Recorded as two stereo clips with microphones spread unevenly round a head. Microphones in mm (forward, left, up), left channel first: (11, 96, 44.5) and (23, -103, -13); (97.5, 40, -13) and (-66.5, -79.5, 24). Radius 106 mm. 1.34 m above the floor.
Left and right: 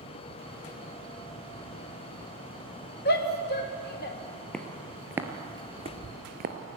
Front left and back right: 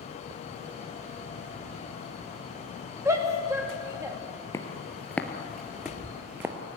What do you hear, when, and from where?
3.0 s a shout: 140° left, 1.8 m
4.5 s footsteps: 120° left, 1.4 m; by 6.5 s 110° right, 1.4 m